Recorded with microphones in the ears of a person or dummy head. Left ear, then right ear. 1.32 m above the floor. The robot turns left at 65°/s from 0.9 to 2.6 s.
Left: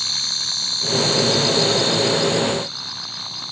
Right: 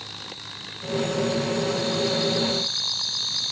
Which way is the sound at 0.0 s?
80° left.